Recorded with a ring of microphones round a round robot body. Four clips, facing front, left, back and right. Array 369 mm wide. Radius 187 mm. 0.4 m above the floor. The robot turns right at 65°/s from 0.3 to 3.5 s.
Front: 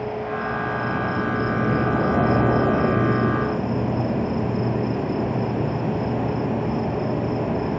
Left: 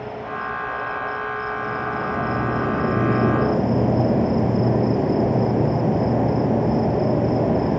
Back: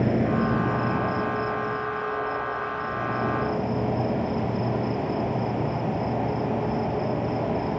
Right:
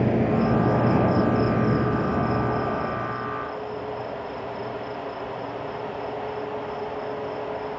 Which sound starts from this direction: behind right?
An insect, at 0.0 s.